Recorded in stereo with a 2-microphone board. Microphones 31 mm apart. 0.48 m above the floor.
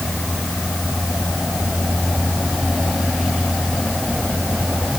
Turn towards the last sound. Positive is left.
No sound to turn to.